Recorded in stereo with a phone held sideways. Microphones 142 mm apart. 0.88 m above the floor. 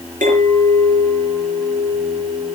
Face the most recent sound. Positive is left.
turn(degrees=-70)  # may be behind; listen again after turning